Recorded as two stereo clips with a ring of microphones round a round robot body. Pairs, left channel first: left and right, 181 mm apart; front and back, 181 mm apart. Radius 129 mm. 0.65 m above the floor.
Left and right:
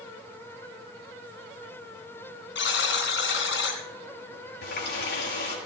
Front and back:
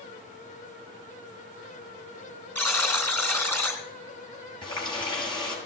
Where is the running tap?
65° left, 8.5 m.